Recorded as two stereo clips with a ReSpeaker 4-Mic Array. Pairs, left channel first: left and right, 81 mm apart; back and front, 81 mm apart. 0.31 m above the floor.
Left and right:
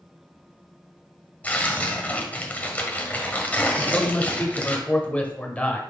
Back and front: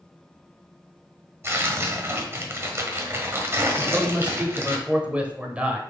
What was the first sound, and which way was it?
Tearing paper, 30° left.